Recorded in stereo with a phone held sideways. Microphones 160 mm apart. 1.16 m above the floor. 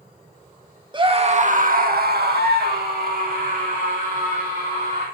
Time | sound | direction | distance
0.9 | a scream | 30° right (ahead or behind) | 2 m